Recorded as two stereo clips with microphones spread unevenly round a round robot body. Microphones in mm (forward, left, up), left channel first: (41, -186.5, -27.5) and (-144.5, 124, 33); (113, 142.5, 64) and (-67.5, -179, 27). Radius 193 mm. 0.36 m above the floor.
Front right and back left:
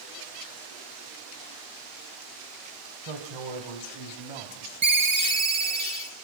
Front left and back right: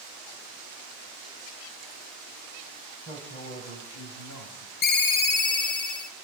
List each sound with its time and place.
3.0 s a man speaking: 140° left, 2.5 m; by 4.7 s 110° left, 2 m
4.8 s a ringtone: 45° left, 1.7 m